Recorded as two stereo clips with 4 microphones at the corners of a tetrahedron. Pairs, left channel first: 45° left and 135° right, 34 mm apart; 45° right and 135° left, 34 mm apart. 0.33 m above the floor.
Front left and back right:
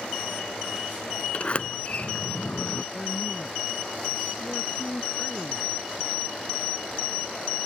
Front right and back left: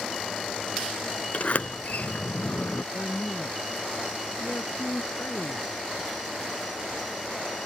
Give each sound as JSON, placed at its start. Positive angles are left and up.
{"t": 1.3, "sound": "a sliding door", "azimuth_deg": -5}
{"t": 2.9, "sound": "a woman speaking", "azimuth_deg": -10}